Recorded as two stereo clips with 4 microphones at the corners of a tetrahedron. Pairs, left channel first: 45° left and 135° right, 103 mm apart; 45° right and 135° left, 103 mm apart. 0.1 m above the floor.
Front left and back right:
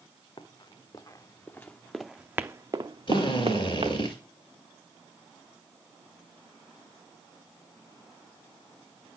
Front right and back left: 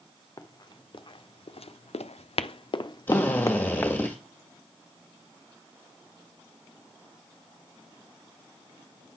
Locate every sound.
0.4 s running footsteps: 5° left, 1.2 m; by 4.0 s 115° right, 1.1 m
3.1 s a drill: 20° left, 2.0 m